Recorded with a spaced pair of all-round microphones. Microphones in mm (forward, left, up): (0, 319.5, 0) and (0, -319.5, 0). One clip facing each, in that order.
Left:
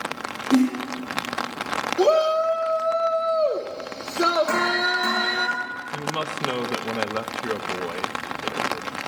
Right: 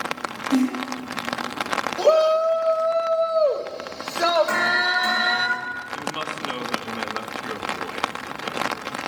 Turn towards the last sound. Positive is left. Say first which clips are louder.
# left 2 dB
turn(degrees=65)  # may be behind; listen again after turning